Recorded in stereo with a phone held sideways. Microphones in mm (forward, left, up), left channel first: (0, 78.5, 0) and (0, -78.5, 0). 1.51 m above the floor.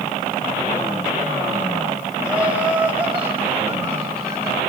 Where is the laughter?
10° right (ahead or behind), 7.5 m; by 4.6 s 20° right (ahead or behind), 9 m.